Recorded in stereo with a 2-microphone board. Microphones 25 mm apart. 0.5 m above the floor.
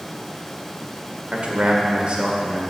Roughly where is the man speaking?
Right.